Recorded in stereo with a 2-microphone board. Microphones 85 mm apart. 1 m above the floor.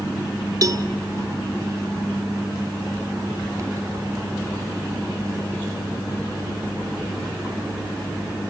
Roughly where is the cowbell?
Right.